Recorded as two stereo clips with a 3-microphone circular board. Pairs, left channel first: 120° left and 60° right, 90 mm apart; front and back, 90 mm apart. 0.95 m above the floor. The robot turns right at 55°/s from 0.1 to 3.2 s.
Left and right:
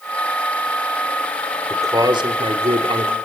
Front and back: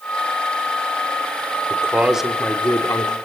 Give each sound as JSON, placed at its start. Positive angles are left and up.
{"t": 1.7, "sound": "a man speaking", "azimuth_deg": -120, "distance_m": 2.5}